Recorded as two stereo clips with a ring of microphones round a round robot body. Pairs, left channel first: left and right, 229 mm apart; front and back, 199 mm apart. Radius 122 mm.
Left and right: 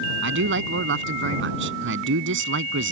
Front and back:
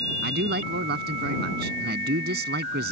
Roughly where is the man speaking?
Behind right.